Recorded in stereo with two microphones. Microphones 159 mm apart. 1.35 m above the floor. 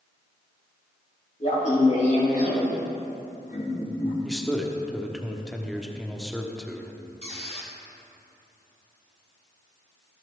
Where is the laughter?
45° left (ahead or behind), 4 m; by 4.1 s 75° left (ahead or behind), 3 m.